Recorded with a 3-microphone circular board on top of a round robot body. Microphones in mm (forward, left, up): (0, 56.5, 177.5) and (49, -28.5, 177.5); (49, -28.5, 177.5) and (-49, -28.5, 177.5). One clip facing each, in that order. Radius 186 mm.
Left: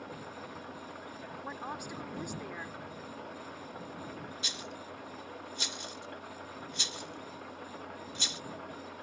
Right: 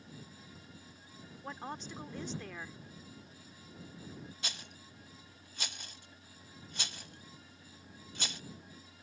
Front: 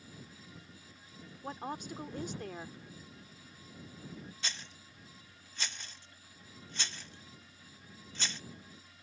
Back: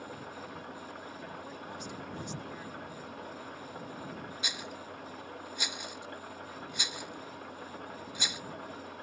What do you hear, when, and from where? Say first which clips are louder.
0.0 s an engine running: left 10 dB, back 11 dB; 145° left
1.4 s a woman speaking: left 1 dB, front 2 dB; 40° left
4.4 s a rattle: left 6 dB, back 6 dB; 100° right